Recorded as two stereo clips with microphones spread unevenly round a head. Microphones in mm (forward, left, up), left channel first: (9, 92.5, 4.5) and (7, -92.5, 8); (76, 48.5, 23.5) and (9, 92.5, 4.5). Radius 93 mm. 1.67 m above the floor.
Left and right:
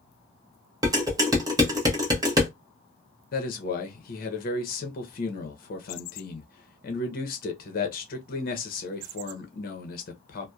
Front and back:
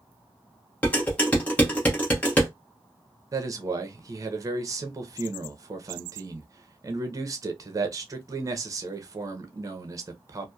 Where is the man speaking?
100° left, 0.7 m.